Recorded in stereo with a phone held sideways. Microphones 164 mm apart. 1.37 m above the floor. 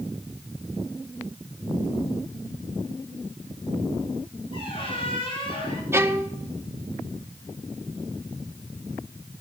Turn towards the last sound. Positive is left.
turn(degrees=-15)  # may be behind; listen again after turning